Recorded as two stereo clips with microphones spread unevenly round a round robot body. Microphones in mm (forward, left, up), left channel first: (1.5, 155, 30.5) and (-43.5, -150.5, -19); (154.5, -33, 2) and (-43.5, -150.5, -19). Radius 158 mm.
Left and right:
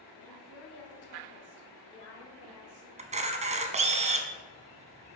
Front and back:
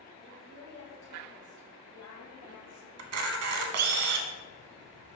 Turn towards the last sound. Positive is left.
turn(degrees=-170)